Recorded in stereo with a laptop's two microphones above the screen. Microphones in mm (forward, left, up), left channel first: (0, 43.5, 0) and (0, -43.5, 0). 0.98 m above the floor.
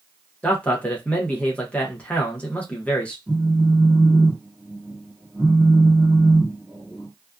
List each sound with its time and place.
0.4 s a man speaking: 15° left (ahead or behind), 0.6 m
3.3 s a phone buzzing: centre (ahead or behind), 1.6 m